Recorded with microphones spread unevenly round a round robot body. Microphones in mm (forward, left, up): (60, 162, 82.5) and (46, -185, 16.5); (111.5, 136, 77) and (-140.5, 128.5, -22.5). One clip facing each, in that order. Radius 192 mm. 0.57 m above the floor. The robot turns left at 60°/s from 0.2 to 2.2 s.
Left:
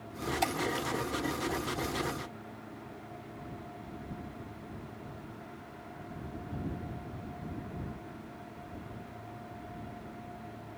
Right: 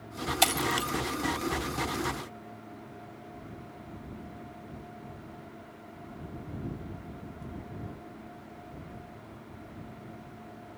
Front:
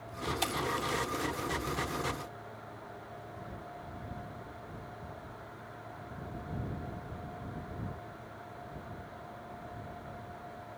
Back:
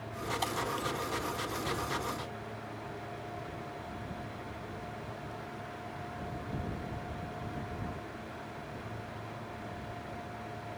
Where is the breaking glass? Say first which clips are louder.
Right 3 dB, front 1 dB; 65° right; by 0.9 s 95° right.